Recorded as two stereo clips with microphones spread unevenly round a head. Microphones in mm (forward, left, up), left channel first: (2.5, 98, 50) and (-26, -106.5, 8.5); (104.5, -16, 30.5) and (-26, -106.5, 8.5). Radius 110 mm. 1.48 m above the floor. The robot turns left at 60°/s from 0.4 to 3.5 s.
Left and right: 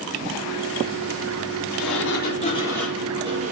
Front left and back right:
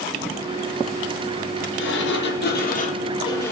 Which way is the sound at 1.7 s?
65° left.